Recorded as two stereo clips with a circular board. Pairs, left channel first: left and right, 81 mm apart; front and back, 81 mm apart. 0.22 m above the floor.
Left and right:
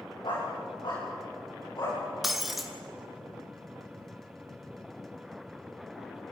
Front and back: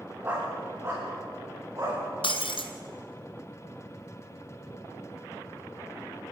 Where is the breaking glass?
Straight ahead, 1.8 m.